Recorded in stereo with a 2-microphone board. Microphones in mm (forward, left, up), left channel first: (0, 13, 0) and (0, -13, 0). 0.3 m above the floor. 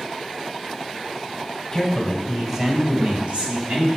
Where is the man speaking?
15° left (ahead or behind), 1.7 m; by 3.9 s 60° right (ahead or behind), 2.5 m.